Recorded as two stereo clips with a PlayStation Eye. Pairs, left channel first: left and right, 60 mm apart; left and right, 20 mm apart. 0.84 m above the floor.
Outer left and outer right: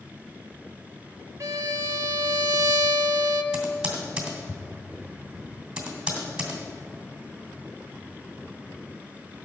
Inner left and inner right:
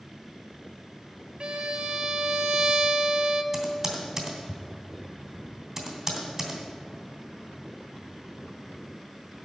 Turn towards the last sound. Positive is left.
turn(degrees=-15)  # may be behind; listen again after turning